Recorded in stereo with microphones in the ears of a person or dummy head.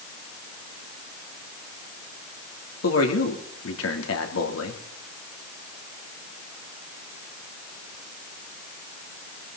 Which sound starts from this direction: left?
A man speaking, at 2.8 s.